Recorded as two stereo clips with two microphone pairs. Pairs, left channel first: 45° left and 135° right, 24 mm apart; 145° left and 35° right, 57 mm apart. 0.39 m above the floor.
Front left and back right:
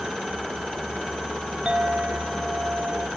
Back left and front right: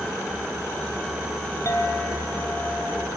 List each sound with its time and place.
1.6 s a clink: straight behind, 3 m